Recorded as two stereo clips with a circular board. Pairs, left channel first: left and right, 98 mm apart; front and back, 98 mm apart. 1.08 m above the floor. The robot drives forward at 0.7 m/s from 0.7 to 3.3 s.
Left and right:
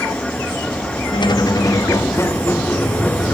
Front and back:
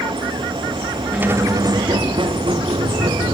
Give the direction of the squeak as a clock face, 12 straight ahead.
8 o'clock.